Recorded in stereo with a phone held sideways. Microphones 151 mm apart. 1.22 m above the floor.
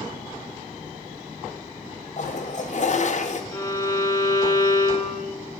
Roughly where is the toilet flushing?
Left.